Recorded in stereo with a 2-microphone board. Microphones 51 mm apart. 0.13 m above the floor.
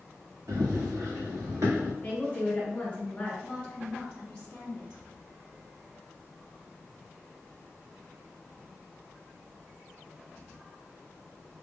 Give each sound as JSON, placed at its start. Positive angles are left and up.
{"t": 0.5, "sound": "running footsteps", "side_deg": -85, "distance_m": 1.5}
{"t": 2.0, "sound": "a woman speaking", "side_deg": 25, "distance_m": 1.3}
{"t": 3.4, "sound": "a woman speaking", "side_deg": 10, "distance_m": 1.2}